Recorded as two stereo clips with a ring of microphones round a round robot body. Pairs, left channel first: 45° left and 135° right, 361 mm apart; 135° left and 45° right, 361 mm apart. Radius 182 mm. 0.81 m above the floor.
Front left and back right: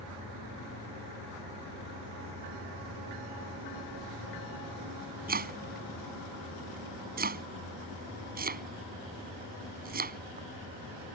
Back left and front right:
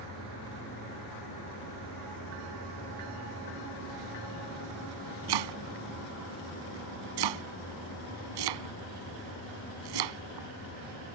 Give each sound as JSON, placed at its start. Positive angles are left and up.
{"t": 5.3, "sound": "chopping", "azimuth_deg": -70}